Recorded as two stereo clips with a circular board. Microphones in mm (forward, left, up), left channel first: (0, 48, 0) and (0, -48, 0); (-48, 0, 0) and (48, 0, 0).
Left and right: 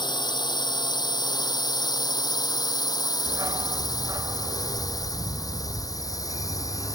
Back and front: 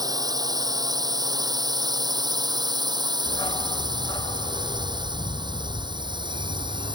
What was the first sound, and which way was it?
A drone, 50° left.